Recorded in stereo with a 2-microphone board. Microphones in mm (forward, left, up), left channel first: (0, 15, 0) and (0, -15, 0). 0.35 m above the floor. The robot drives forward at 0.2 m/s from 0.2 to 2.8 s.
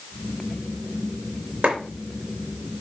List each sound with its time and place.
1.6 s a clap: 35° right (ahead or behind), 4 m